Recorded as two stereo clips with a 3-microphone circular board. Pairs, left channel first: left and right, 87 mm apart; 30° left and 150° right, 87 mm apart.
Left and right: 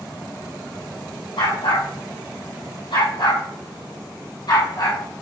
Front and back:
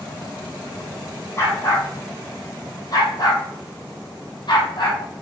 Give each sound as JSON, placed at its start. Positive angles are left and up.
{"t": 1.4, "sound": "a dog barking", "azimuth_deg": 85, "distance_m": 3.5}